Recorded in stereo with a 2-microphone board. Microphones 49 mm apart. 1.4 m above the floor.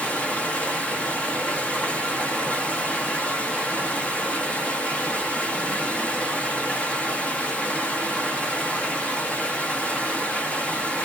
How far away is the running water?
About 0.7 m.